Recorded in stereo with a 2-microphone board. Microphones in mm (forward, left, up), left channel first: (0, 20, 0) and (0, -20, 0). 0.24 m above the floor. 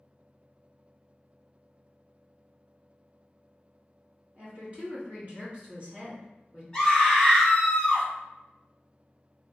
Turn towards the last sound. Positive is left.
turn(degrees=20)  # may be behind; listen again after turning